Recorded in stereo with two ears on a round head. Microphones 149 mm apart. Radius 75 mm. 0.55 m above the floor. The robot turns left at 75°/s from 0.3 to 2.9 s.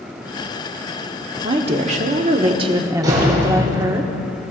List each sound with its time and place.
1.4 s a woman speaking: 40° right, 1.0 m; by 4.0 s 150° right, 1.0 m
3.0 s a door slam: 25° right (ahead or behind), 6 m